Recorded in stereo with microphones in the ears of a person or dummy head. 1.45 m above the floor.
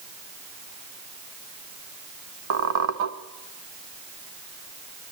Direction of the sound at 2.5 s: 70° right (ahead or behind).